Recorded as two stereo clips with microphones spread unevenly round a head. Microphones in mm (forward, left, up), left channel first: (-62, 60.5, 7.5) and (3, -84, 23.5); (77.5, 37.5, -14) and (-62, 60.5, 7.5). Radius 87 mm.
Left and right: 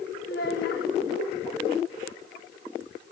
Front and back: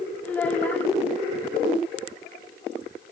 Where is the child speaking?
75° left, 0.7 m.